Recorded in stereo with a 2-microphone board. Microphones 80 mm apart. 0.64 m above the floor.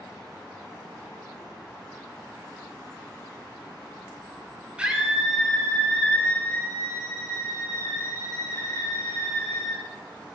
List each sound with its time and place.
4.8 s a scream: 15° right (ahead or behind), 2.5 m; by 9.8 s 45° left (ahead or behind), 7.5 m